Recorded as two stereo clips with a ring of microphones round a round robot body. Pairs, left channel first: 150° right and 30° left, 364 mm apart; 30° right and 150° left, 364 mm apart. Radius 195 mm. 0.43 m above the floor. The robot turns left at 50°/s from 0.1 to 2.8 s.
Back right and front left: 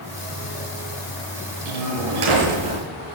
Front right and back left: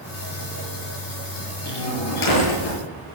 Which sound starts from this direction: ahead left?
A door slam, at 1.6 s.